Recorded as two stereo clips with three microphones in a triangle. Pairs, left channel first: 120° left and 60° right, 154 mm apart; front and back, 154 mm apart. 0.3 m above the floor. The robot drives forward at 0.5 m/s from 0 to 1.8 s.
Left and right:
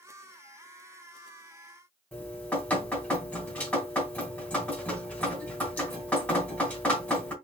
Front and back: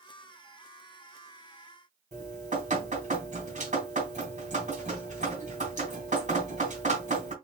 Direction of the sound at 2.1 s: 160° right.